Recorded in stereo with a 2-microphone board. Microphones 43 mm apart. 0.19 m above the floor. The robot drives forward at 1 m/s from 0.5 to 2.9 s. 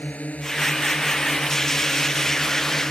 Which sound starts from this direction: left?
A drone, at 0.0 s.